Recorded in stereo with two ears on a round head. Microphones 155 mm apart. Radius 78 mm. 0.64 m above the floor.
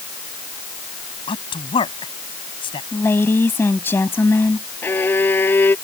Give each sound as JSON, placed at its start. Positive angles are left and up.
{"t": 1.3, "sound": "a man speaking", "side_deg": 30}
{"t": 2.9, "sound": "a woman speaking", "side_deg": 15}
{"t": 4.8, "sound": "a violin", "side_deg": 10}